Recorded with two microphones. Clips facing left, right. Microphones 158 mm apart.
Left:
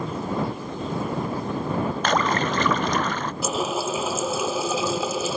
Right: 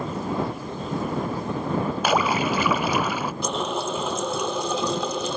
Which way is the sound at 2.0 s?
10° right (ahead or behind).